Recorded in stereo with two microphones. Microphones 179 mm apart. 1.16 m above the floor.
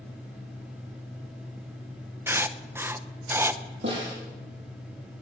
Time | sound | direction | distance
2.3 | writing | 15° right (ahead or behind) | 0.6 m
3.8 | a snare drum | 80° right | 8 m